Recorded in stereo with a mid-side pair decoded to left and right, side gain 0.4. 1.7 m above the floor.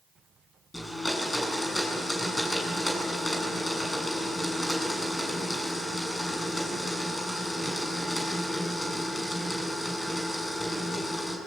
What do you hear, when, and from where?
0.7 s a blender: 20° left, 7.5 m